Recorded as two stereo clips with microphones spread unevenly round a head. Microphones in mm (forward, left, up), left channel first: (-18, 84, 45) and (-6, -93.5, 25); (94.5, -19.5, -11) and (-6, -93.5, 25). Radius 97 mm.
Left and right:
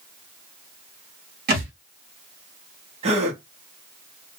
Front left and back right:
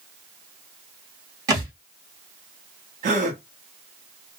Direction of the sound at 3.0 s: 145° right.